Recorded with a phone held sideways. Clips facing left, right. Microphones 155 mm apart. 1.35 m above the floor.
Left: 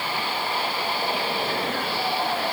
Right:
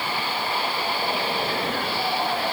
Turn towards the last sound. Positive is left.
No sound to turn to.